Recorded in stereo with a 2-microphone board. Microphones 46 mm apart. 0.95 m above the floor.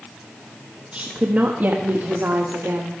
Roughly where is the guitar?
No guitar in this recording.